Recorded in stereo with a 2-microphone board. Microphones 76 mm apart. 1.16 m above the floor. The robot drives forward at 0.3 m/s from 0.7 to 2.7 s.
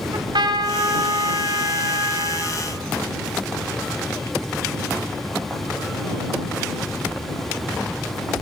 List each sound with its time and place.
0.1 s a trumpet: 75° right (ahead or behind), 3.5 m; by 2.6 s 65° right (ahead or behind), 3.5 m